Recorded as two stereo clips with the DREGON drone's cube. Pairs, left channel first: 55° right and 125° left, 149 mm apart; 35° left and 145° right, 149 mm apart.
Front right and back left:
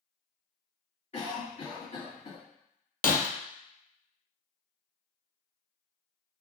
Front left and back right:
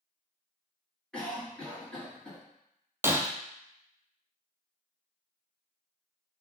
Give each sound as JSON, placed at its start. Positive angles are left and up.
{"t": 1.1, "sound": "a cough", "azimuth_deg": -50, "distance_m": 2.0}
{"t": 3.0, "sound": "breaking glass", "azimuth_deg": -70, "distance_m": 0.6}